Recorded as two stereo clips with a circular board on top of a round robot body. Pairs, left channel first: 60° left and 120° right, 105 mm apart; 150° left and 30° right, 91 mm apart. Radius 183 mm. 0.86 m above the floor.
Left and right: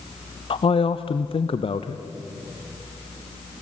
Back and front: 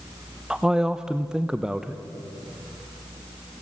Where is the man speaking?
50° left, 0.7 m.